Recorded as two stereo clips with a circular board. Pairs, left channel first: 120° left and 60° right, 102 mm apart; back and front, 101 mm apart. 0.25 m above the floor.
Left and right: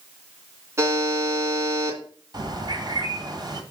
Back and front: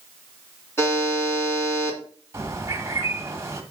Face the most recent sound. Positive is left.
turn(degrees=-50)